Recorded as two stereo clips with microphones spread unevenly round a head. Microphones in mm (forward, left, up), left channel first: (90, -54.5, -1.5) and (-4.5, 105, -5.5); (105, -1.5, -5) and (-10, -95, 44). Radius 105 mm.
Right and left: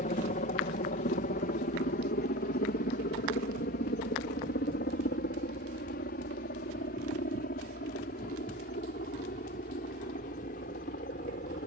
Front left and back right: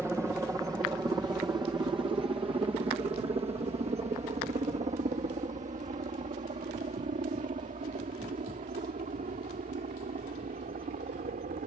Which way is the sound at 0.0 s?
55° right.